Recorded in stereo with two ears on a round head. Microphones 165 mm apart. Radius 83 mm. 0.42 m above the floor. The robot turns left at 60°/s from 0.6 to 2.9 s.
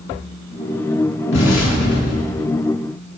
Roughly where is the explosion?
Left.